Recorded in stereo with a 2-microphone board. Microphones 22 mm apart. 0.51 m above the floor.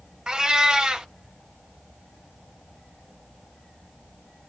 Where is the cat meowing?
35° right (ahead or behind), 0.6 m.